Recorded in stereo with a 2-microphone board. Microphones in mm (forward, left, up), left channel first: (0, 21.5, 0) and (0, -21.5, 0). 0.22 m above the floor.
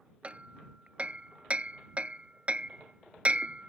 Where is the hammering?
30° right (ahead or behind).